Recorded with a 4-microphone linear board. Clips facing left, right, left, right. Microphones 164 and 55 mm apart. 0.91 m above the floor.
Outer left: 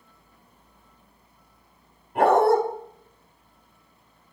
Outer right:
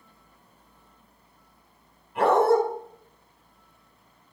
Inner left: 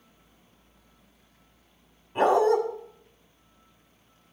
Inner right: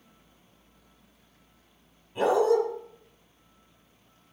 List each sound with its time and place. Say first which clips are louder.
2.1 s a dog barking: outer left 2 dB, inner left 2 dB; 45° left (ahead or behind), 1.8 m